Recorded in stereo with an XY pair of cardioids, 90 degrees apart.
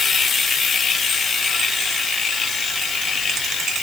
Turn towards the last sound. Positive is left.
No sound to turn to.